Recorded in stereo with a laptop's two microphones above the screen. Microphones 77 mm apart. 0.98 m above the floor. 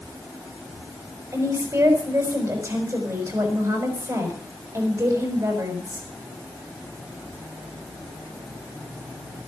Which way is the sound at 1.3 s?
35° right (ahead or behind).